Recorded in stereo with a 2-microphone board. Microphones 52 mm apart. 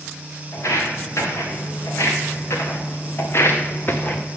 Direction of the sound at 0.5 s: 65° left (ahead or behind).